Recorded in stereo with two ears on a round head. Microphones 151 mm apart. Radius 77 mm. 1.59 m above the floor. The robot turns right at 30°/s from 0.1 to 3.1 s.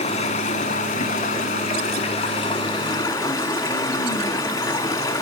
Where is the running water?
60° left, 1.4 m; by 5.2 s 150° left, 1.4 m.